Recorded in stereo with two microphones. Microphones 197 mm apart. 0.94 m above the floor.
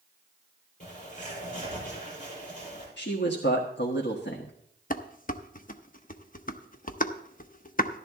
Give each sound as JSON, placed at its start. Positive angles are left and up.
{"t": 0.8, "sound": "a bird", "side_deg": 45, "distance_m": 7.5}
{"t": 3.0, "sound": "a man speaking", "side_deg": 80, "distance_m": 1.2}
{"t": 4.9, "sound": "dishes clattering", "side_deg": 45, "distance_m": 0.7}